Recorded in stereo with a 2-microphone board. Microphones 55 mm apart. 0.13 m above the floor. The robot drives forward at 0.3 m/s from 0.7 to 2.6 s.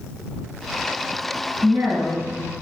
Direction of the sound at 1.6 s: 30° right (ahead or behind).